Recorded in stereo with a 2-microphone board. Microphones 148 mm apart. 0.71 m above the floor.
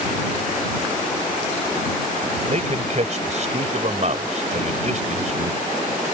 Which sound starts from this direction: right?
A man speaking, at 2.5 s.